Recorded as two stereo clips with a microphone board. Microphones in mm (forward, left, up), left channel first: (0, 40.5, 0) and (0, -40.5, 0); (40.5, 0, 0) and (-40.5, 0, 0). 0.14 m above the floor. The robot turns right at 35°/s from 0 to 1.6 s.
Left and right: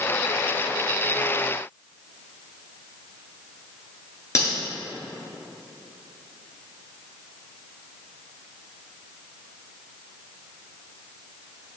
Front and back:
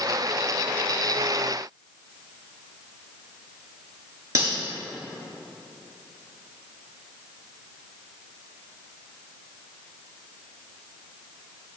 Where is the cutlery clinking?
140° left, 1.5 m.